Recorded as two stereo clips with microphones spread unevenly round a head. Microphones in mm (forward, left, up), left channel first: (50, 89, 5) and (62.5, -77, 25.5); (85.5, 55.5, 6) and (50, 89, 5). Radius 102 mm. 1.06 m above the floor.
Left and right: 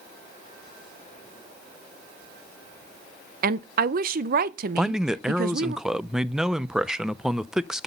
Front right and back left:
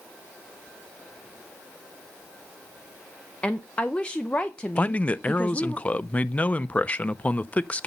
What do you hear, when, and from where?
3.4 s a woman speaking: 115° right, 0.5 m
4.8 s a man speaking: 10° left, 0.6 m